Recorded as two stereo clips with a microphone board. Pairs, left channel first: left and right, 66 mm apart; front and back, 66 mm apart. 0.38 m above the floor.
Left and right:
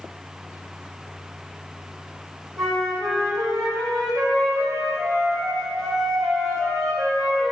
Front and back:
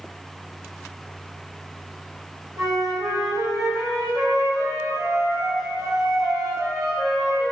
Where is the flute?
Straight behind, 2.5 m.